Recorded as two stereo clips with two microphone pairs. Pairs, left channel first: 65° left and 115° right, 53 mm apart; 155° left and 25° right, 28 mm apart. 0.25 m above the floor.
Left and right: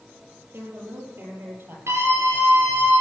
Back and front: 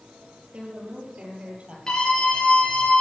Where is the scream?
140° right, 6 m.